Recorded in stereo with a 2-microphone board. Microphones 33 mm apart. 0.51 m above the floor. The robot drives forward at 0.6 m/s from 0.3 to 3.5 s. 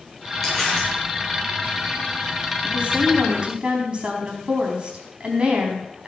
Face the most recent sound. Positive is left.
turn(degrees=-35)  # may be behind; listen again after turning